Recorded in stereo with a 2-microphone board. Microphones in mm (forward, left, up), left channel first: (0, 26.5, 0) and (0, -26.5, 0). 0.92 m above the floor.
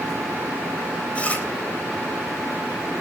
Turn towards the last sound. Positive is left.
turn(degrees=25)  # may be behind; listen again after turning